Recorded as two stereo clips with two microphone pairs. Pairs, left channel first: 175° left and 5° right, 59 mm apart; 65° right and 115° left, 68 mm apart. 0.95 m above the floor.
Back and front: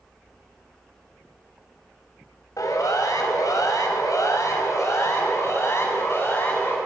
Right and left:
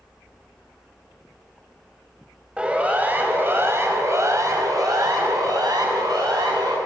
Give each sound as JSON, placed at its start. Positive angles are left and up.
{"t": 2.6, "sound": "a siren", "azimuth_deg": -170, "distance_m": 4.5}